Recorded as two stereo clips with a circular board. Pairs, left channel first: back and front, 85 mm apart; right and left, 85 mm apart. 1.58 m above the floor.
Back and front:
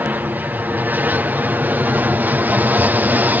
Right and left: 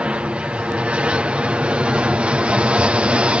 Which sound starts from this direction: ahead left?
An aircraft, at 0.0 s.